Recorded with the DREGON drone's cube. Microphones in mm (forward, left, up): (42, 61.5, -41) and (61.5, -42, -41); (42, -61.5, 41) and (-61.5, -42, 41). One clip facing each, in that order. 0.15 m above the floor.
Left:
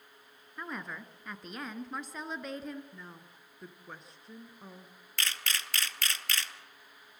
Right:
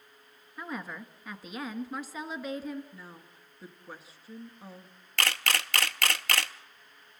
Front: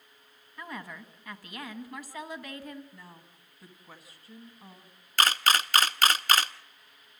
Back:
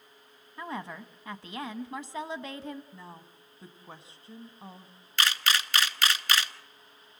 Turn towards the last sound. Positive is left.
turn(degrees=-60)